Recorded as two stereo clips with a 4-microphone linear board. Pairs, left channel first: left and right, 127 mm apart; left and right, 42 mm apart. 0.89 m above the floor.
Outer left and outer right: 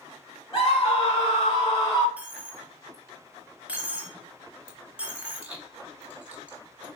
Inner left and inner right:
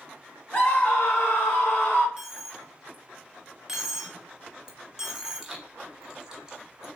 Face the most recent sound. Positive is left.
turn(degrees=-10)  # may be behind; listen again after turning